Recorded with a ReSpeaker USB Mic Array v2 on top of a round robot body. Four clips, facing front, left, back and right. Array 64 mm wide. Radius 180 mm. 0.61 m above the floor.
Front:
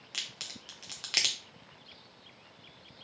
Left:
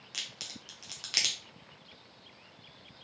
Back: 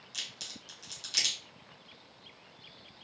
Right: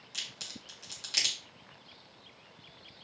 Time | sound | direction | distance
0.1 | a crack | 20° left | 0.7 m